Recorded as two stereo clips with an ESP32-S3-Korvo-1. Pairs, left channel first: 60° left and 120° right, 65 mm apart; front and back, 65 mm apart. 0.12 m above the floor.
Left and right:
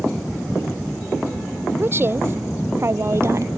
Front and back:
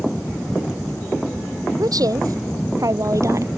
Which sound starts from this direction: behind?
A woman speaking, at 1.8 s.